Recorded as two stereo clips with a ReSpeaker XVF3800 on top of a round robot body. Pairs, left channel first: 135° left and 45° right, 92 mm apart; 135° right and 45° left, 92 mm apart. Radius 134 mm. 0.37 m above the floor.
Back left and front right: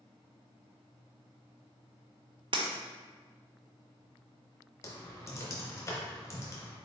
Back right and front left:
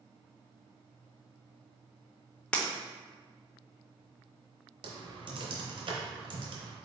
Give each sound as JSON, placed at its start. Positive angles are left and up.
{"t": 2.5, "sound": "breaking glass", "azimuth_deg": -60, "distance_m": 0.9}
{"t": 4.8, "sound": "typing on a keyboard", "azimuth_deg": 75, "distance_m": 0.9}